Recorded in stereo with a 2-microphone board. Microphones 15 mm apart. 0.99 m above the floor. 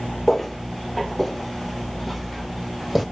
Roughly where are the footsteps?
Left.